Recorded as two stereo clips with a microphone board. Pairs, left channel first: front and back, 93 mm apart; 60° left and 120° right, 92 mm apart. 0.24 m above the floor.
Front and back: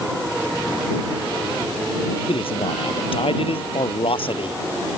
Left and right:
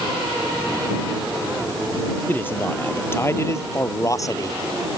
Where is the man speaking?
10° right; by 4.6 s 10° left.